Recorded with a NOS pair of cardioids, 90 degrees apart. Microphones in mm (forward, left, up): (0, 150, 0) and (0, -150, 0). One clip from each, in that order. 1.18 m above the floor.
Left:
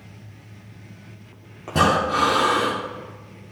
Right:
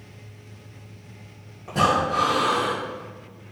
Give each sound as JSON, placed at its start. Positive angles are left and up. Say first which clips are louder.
{"t": 1.7, "sound": "breathing", "louder": "left 2 dB", "azimuth_deg": 60, "distance_m": 2.5}